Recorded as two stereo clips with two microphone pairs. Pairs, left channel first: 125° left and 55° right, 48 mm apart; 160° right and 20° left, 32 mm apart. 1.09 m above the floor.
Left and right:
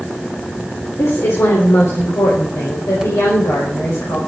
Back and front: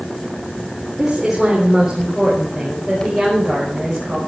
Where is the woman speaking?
95° left, 3.5 m; by 4.2 s 120° left, 5.5 m.